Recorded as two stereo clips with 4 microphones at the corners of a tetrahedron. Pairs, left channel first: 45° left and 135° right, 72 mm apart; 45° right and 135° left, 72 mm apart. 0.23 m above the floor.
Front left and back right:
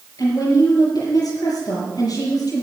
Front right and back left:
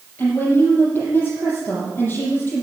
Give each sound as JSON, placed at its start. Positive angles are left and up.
{"t": 0.2, "sound": "a woman speaking", "azimuth_deg": 15, "distance_m": 5.5}